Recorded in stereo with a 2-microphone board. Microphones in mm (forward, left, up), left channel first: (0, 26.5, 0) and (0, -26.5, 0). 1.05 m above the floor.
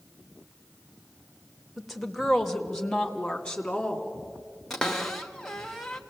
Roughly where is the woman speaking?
Centre.